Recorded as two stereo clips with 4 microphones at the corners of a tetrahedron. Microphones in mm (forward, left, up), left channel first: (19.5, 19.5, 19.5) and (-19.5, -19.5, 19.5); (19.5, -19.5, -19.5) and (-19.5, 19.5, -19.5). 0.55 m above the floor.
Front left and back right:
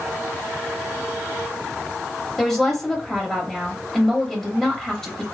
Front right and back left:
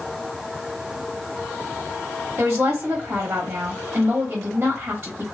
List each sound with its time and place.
2.4 s a woman speaking: 125° left, 0.9 m